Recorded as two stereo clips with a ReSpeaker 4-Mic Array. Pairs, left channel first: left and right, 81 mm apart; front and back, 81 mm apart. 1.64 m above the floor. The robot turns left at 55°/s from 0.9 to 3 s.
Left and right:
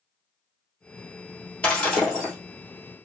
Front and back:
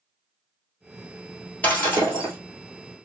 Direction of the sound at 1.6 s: 40° left.